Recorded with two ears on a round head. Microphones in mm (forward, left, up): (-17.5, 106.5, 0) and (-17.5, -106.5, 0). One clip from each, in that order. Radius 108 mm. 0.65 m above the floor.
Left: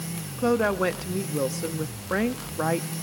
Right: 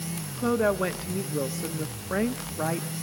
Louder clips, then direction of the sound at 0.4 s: Left 2 dB; 15° left (ahead or behind).